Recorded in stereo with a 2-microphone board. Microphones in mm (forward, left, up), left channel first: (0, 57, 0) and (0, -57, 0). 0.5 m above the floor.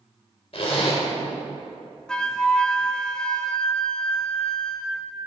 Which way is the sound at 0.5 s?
55° left (ahead or behind).